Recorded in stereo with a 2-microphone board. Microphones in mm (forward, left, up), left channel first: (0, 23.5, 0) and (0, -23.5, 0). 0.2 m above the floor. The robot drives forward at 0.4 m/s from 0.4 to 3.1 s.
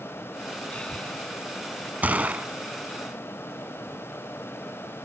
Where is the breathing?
25° left (ahead or behind), 1.6 m.